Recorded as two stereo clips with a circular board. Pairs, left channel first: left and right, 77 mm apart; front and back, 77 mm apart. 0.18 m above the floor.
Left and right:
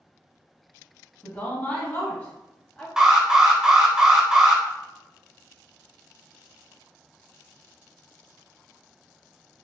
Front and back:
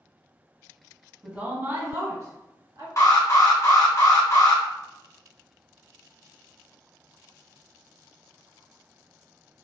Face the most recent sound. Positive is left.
turn(degrees=-10)